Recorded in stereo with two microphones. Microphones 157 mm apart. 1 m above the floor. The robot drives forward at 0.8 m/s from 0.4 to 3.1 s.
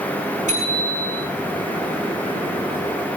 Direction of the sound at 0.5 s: 55° right (ahead or behind).